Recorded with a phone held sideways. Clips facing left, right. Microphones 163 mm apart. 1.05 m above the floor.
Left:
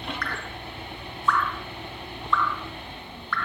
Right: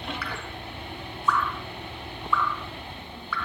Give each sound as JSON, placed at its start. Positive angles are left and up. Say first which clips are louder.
{"t": 0.2, "sound": "dripping", "louder": "left 1 dB", "side_deg": -5, "distance_m": 0.8}